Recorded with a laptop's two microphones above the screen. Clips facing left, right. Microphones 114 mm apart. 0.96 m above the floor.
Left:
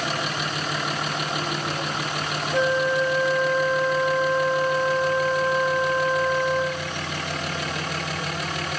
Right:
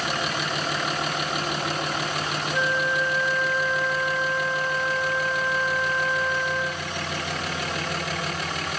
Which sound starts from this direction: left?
A flute, at 2.5 s.